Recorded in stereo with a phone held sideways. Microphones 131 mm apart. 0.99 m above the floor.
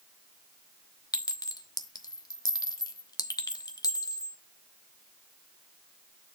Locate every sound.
1.1 s a clink: 30° left (ahead or behind), 0.9 m